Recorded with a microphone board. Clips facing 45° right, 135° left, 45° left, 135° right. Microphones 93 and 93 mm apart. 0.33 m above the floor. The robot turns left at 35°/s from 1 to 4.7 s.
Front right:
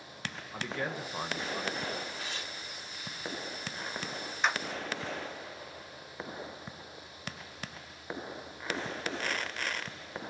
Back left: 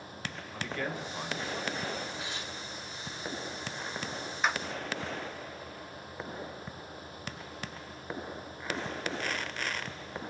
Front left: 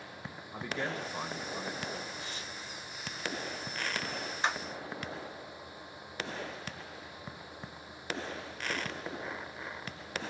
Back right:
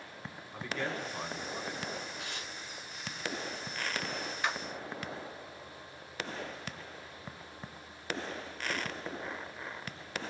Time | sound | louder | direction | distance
0.5 | a man speaking | even, even | straight ahead | 0.9 m
2.2 | tearing paper | back left 1 dB, even | 150° right | 1.1 m
4.4 | a clap | even, front left 2 dB | 50° left | 0.9 m